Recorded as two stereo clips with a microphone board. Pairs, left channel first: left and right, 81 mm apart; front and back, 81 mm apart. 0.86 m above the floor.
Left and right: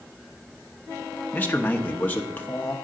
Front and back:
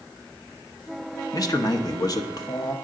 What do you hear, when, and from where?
1.3 s a man speaking: 25° left, 0.9 m